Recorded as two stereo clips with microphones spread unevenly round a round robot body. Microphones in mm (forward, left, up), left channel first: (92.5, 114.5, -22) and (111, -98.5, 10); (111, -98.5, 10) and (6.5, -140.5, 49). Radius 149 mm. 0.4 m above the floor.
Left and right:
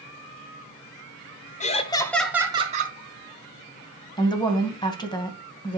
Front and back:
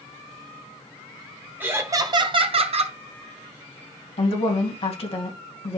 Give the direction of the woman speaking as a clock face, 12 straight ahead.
11 o'clock.